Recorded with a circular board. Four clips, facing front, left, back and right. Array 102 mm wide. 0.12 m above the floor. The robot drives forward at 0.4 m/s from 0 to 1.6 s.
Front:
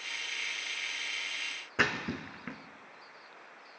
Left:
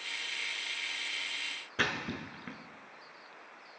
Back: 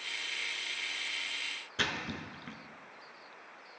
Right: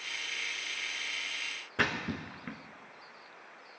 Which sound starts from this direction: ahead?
A splash, at 1.8 s.